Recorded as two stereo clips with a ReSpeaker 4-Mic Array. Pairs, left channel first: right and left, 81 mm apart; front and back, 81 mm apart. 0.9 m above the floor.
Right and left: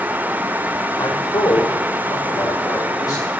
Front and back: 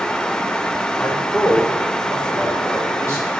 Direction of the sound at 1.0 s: 80° right.